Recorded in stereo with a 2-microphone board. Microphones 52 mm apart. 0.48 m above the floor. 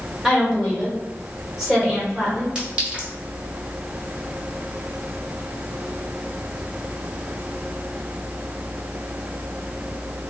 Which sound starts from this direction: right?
A clink, at 2.5 s.